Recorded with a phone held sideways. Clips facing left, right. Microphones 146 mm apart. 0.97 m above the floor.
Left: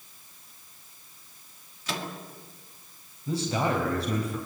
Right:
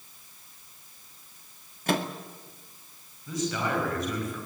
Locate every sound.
1.9 s a microwave: 55° right (ahead or behind), 1.9 m
3.3 s a man speaking: 35° left (ahead or behind), 5 m